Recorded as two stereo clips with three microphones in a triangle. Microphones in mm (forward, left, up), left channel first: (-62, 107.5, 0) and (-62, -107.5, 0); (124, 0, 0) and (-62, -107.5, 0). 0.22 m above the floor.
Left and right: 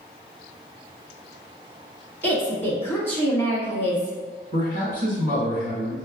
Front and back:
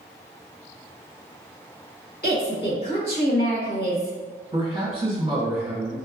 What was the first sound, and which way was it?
A woman speaking, 10° left.